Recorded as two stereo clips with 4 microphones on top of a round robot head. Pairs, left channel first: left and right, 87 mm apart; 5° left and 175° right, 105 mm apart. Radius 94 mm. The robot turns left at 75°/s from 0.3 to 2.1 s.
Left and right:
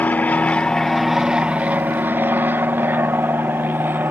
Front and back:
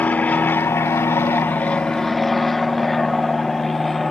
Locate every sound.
0.0 s an aircraft: 55° left; by 4.1 s 80° right